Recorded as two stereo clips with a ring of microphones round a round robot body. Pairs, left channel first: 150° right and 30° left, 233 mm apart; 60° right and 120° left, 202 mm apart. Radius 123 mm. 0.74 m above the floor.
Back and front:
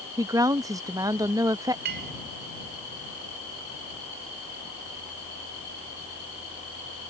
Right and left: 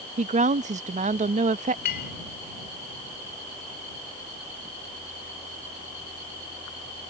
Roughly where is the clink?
Ahead.